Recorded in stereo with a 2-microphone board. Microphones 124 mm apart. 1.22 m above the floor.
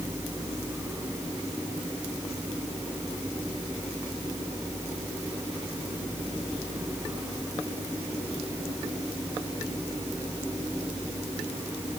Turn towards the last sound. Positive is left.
No sound to turn to.